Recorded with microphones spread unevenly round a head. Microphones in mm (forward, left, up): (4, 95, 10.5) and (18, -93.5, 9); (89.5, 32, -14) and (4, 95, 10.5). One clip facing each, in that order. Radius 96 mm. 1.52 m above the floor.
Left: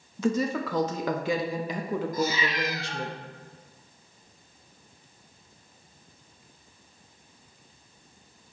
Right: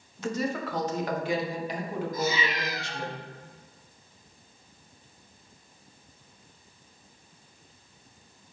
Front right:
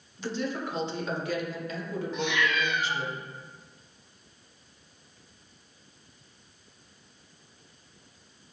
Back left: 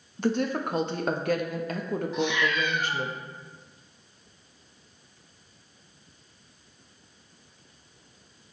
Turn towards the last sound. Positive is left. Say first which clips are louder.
# left 1 dB, back left 1 dB
turn(degrees=95)